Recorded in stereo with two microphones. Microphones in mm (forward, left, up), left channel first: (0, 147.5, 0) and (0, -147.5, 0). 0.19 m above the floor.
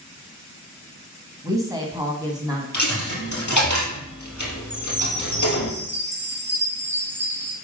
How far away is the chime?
About 2 m.